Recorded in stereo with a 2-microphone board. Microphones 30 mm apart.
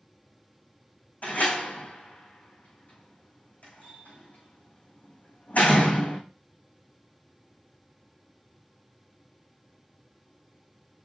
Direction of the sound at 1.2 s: 65° left (ahead or behind).